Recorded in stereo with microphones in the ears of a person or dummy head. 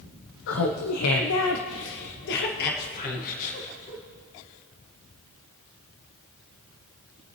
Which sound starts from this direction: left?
Laughter, at 0.5 s.